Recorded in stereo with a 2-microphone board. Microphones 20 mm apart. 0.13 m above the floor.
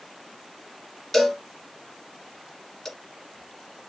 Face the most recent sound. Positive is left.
turn(degrees=10)  # may be behind; listen again after turning